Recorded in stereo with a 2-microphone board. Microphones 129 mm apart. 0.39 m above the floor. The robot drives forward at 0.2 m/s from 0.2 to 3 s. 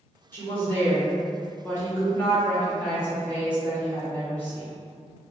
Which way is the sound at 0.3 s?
20° left (ahead or behind).